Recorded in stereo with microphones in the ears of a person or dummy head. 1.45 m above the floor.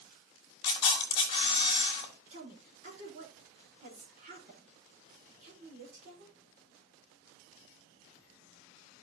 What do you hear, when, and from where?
0.6 s a camera shutter: 30° left (ahead or behind), 1.9 m
2.3 s a woman speaking: 40° right (ahead or behind), 4.5 m